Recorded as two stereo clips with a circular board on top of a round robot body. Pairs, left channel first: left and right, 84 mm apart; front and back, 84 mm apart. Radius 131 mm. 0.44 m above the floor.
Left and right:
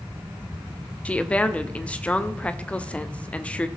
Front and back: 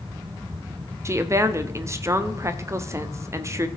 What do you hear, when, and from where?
1.1 s a woman speaking: 155° left, 1.0 m